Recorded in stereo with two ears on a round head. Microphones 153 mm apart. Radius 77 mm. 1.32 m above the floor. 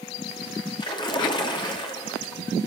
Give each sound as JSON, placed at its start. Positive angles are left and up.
{"t": 0.8, "sound": "a splash", "side_deg": 30, "distance_m": 2.5}